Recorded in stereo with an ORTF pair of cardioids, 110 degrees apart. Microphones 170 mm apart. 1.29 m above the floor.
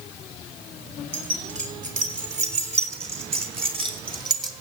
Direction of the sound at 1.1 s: 50° right.